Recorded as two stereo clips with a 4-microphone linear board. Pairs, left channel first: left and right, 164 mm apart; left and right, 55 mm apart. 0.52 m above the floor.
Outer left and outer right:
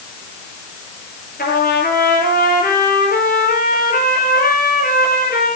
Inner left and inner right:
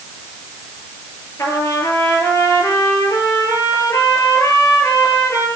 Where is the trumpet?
70° left (ahead or behind), 9 m.